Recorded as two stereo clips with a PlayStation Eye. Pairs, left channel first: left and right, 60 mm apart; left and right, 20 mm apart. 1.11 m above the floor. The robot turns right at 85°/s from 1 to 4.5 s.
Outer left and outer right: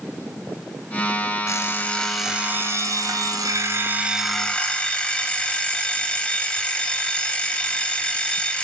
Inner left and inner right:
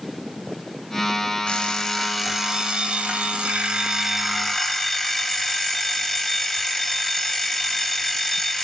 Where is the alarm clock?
120° left, 2.5 m; by 8.6 s 20° left, 2.5 m.